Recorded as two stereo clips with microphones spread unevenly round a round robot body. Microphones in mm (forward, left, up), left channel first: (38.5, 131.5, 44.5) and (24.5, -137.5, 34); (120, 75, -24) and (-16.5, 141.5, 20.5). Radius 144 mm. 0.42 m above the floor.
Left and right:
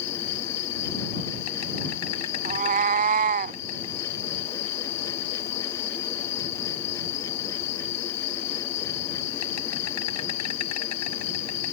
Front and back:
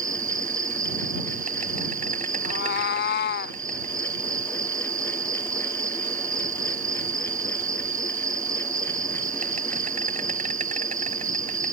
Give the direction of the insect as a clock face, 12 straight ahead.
8 o'clock.